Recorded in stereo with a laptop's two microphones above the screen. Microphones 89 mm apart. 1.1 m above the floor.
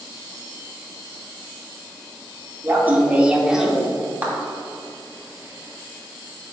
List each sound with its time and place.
2.6 s laughter: 25° right (ahead or behind), 2 m; by 3.9 s centre (ahead or behind), 2.5 m
4.2 s a clap: 20° right (ahead or behind), 2.5 m